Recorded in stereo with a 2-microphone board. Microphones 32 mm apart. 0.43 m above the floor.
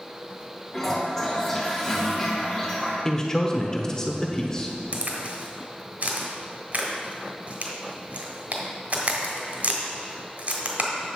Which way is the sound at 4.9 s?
55° right (ahead or behind).